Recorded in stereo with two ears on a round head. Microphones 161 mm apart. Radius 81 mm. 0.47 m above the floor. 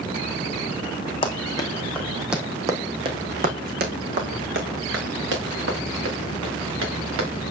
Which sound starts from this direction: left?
Running footsteps, at 1.2 s.